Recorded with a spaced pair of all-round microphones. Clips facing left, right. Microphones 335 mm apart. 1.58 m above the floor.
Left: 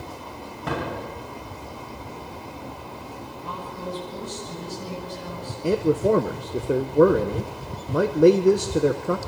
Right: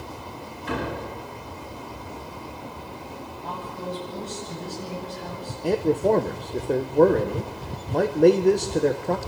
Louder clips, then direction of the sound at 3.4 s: Right 1 dB; 15° left (ahead or behind).